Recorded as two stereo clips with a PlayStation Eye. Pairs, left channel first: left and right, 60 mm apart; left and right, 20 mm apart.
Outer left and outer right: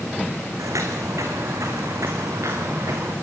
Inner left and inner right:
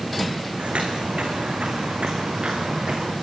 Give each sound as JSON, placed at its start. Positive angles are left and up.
{"t": 0.6, "sound": "footsteps", "side_deg": -70, "distance_m": 4.0}